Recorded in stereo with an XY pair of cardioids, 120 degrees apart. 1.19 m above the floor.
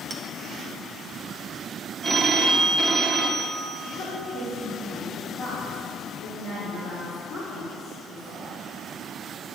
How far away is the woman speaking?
About 2.5 m.